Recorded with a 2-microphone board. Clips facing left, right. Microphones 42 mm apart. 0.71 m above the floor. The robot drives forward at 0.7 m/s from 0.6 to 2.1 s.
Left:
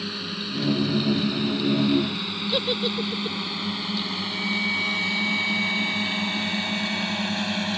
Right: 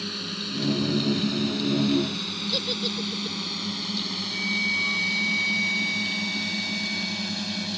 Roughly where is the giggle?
Left.